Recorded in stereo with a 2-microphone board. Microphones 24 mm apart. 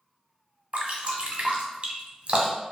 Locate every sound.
0.7 s dripping: 55° right (ahead or behind), 0.8 m